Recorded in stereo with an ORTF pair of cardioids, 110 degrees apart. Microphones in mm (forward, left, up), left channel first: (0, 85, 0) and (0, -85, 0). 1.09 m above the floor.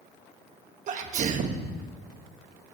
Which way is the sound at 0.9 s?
50° right.